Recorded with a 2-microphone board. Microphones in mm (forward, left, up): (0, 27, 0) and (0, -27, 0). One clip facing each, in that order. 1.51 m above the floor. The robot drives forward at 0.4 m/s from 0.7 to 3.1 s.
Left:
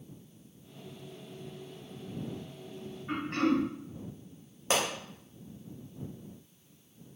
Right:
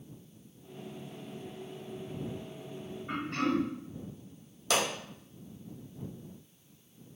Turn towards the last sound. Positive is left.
turn(degrees=35)  # may be behind; listen again after turning